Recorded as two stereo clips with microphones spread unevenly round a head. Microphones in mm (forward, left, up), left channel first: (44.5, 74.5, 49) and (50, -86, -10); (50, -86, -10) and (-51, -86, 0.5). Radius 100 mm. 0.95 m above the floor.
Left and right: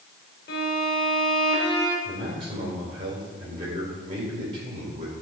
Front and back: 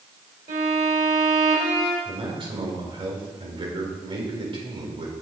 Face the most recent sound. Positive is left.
turn(degrees=-150)